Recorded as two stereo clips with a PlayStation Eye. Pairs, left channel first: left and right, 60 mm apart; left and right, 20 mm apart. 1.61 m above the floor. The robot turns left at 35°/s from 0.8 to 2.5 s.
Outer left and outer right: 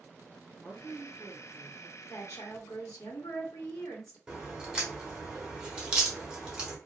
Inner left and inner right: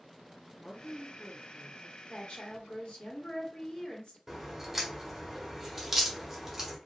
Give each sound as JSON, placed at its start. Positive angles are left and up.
{"t": 0.6, "sound": "a woman speaking", "azimuth_deg": 170, "distance_m": 1.4}
{"t": 2.1, "sound": "a woman speaking", "side_deg": 70, "distance_m": 1.5}
{"t": 4.3, "sound": "a crack", "side_deg": -15, "distance_m": 1.2}